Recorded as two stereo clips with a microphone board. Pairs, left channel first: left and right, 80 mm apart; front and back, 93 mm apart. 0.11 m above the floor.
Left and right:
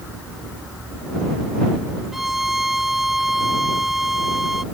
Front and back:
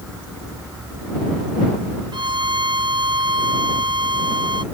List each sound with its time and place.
2.1 s a violin: 175° right